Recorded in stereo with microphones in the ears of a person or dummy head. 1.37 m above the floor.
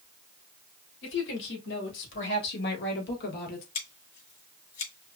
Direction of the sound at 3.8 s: 40° left (ahead or behind).